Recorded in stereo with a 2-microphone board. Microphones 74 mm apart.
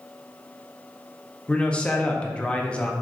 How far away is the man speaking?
About 0.6 m.